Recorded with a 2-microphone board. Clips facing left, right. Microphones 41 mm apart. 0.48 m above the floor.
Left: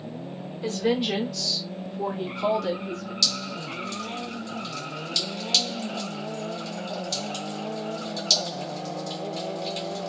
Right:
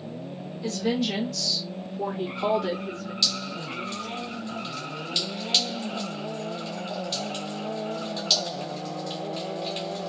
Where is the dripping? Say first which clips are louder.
Even; 25° right (ahead or behind), 1.5 m.